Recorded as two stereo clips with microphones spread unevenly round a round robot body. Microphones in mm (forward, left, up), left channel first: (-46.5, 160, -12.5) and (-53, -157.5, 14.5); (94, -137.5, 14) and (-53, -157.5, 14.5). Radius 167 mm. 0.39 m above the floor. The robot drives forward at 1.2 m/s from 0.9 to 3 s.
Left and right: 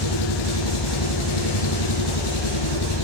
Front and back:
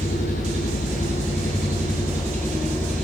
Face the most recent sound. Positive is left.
turn(degrees=95)